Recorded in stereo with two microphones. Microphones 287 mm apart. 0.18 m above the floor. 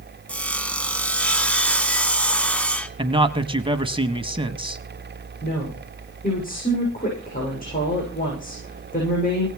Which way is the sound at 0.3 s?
5° left (ahead or behind).